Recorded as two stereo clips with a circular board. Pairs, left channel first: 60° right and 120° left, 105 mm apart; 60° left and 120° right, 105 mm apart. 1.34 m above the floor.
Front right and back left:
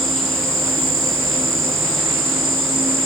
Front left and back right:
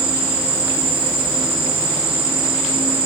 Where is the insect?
150° right, 3 m.